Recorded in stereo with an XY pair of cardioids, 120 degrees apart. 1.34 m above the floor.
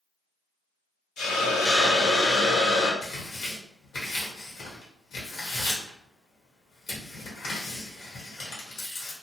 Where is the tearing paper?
55° left, 1.2 m.